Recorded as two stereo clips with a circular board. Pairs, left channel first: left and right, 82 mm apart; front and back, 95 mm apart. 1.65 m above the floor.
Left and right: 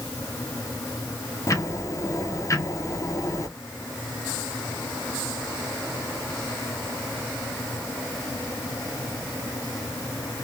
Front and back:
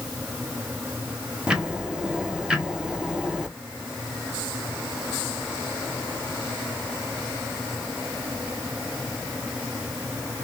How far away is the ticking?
About 0.7 m.